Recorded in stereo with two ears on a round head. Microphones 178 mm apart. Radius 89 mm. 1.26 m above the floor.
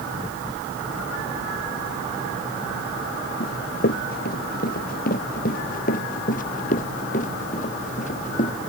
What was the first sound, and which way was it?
Running footsteps, 50° left (ahead or behind).